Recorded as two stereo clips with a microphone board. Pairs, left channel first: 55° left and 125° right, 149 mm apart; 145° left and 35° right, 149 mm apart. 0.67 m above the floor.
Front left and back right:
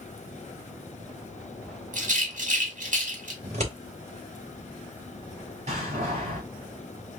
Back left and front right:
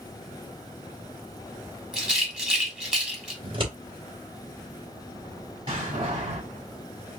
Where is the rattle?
115° right, 1.4 m.